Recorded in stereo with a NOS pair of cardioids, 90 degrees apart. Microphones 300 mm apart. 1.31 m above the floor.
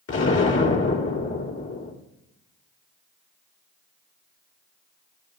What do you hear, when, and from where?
0.1 s an explosion: 50° left, 3 m